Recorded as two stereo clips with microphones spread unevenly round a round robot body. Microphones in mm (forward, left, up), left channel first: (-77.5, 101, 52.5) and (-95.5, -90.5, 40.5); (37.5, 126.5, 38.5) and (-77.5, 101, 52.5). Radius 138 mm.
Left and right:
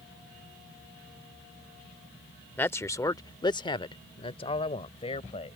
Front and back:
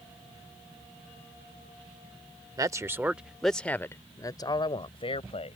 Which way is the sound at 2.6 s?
160° left.